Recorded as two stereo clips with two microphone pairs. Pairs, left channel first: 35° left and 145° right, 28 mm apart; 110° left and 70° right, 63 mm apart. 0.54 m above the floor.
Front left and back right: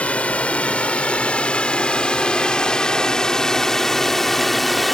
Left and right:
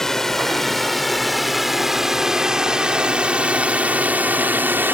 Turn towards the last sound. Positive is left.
turn(degrees=-50)